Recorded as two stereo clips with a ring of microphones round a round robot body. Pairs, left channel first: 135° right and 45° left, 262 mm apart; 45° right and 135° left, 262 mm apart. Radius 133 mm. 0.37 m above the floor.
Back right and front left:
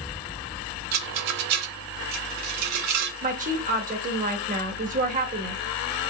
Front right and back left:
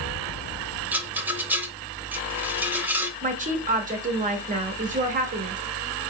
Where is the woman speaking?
90° left, 1.0 m.